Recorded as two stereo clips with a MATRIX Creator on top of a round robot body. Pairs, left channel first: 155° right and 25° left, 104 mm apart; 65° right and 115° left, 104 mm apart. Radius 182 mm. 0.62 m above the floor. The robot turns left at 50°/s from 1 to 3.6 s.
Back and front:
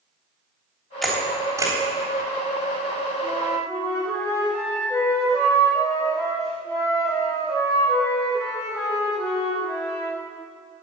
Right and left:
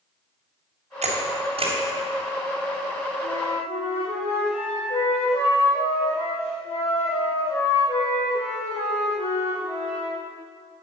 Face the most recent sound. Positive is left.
turn(degrees=-90)